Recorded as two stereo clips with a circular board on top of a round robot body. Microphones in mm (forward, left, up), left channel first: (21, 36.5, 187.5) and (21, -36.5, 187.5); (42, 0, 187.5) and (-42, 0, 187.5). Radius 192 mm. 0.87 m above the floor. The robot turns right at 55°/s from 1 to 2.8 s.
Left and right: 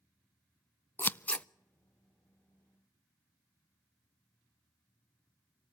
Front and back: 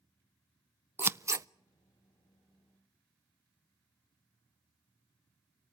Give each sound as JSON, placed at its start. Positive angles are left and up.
{"t": 1.0, "sound": "scissors", "azimuth_deg": 130, "distance_m": 0.7}